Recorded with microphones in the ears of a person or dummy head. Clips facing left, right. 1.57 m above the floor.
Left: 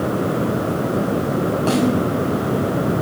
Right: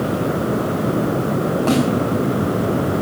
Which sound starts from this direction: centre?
A snare drum, at 1.7 s.